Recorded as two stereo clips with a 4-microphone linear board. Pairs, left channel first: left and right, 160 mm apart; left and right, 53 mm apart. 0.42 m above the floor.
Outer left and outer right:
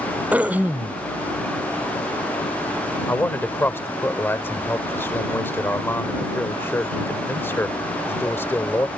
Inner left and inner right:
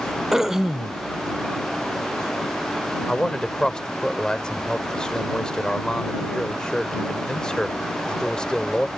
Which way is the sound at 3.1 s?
15° left (ahead or behind).